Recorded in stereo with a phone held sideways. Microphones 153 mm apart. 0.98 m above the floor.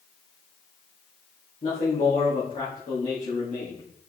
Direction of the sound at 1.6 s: 55° left (ahead or behind).